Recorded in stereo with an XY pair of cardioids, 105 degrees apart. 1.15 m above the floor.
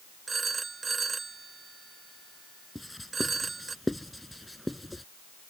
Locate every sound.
0.3 s a phone ringing: 30° right
2.8 s writing: 5° left